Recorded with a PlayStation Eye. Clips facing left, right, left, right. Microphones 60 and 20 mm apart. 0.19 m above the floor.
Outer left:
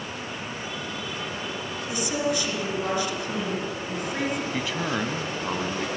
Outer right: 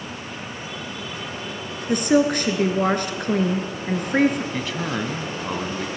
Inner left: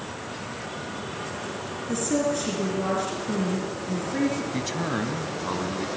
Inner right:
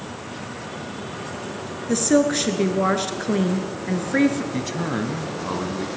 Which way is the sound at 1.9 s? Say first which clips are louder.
Outer right 9 dB, inner right 7 dB; 55° right (ahead or behind).